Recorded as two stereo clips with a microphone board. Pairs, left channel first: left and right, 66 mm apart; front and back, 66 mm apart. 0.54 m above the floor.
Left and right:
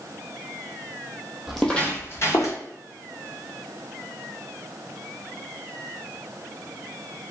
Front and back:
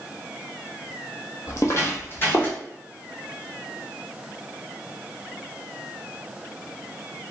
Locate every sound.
1.5 s footsteps: 5° right, 0.7 m; by 2.6 s 60° left, 1.2 m